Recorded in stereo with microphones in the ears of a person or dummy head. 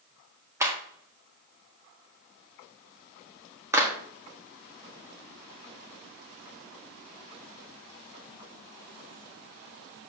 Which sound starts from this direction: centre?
A clap, at 0.6 s.